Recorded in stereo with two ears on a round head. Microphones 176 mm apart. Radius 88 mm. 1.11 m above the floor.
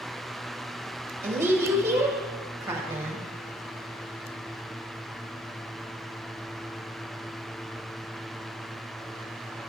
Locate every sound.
1.2 s a woman speaking: 10° right (ahead or behind), 1.2 m